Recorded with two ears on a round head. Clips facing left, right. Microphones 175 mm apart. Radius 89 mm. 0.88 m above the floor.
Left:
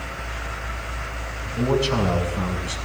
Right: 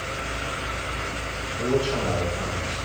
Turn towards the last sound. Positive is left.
turn(degrees=70)  # may be behind; listen again after turning